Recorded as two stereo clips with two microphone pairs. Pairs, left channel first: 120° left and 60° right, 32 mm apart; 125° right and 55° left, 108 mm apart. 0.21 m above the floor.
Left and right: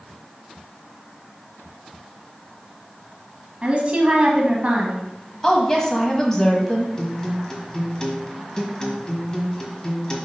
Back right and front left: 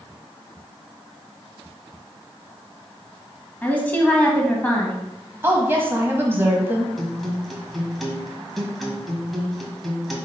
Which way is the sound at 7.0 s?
145° left.